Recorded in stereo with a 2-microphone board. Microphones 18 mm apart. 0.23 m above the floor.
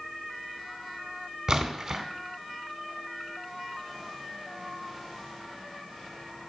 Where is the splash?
35° right (ahead or behind), 0.6 m.